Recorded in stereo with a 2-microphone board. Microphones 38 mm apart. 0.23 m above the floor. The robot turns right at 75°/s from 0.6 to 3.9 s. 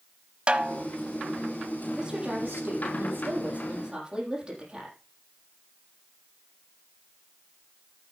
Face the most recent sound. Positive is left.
turn(degrees=-25)